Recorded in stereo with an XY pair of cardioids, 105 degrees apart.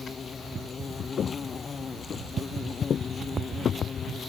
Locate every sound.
0.0 s an insect: 35° left
1.2 s footsteps: 50° left